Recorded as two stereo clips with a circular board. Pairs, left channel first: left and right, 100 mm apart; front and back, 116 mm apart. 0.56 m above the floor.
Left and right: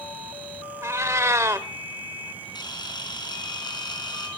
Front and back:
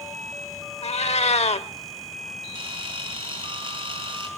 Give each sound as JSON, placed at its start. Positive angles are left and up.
{"t": 0.8, "sound": "a cat meowing", "azimuth_deg": -25, "distance_m": 0.9}
{"t": 2.5, "sound": "a camera shutter", "azimuth_deg": 135, "distance_m": 4.5}